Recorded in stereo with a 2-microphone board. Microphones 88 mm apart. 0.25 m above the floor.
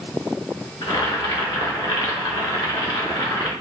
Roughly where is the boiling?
Left.